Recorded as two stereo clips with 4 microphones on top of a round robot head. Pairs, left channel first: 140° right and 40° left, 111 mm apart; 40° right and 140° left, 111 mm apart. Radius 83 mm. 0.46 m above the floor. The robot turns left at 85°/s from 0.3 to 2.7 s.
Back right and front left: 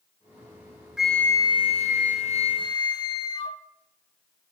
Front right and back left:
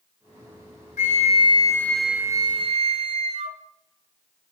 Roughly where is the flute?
Ahead right.